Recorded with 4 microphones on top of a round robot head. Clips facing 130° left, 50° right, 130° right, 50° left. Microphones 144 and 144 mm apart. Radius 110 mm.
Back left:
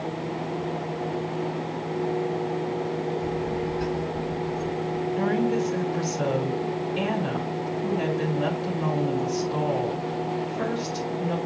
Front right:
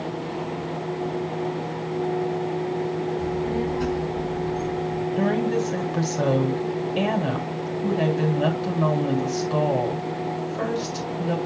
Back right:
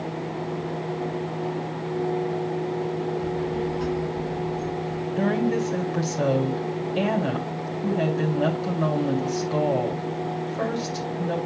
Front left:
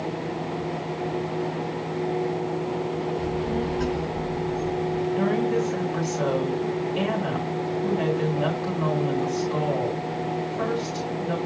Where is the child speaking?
25° left, 5 m; by 5.1 s 5° right, 5 m.